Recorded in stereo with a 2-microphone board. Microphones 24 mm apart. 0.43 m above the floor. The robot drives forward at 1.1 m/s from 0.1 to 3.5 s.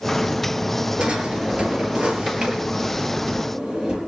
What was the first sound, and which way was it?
A drawer, 60° right (ahead or behind).